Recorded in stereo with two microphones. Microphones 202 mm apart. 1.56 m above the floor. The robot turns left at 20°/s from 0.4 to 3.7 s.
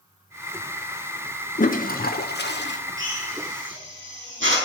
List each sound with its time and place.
1.6 s a toilet flushing: 40° left (ahead or behind), 1.0 m; by 2.8 s 65° left (ahead or behind), 1.0 m
3.0 s a drill: 75° right (ahead or behind), 5 m